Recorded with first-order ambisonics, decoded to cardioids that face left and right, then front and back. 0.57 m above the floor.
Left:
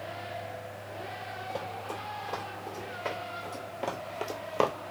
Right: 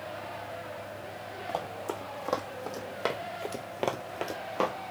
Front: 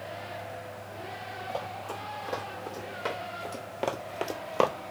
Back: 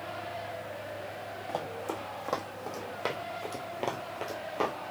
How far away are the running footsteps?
About 1.8 m.